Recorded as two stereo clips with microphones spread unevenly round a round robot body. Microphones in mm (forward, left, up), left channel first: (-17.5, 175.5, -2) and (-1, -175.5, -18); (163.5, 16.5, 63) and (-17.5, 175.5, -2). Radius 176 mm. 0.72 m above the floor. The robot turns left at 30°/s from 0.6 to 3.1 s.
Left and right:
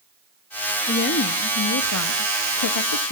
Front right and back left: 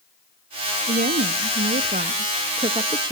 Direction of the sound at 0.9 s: 155° left.